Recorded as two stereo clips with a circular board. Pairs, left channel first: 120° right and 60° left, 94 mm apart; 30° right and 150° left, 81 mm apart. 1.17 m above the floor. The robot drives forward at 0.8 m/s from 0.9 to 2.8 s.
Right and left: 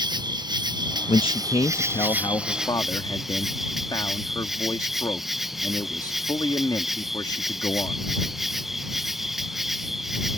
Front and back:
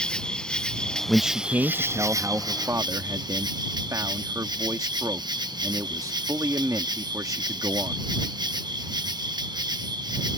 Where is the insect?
45° left; by 10.4 s 145° left.